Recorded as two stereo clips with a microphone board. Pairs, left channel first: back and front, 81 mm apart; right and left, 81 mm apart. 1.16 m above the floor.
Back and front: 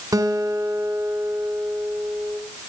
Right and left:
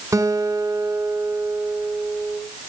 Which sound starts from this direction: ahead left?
A guitar, at 0.1 s.